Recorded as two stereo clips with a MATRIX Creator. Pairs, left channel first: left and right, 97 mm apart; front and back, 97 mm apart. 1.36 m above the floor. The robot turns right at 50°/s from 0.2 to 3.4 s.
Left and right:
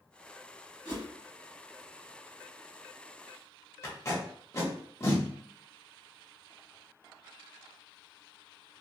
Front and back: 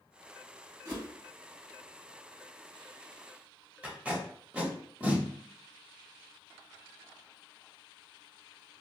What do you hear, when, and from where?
0.8 s a whoosh: 135° left, 1.7 m; by 1.1 s 145° left, 1.7 m
3.8 s tape being pulled: 115° left, 1.0 m